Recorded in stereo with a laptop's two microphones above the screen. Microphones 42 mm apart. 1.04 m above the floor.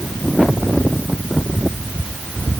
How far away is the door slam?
I don't hear a door slam.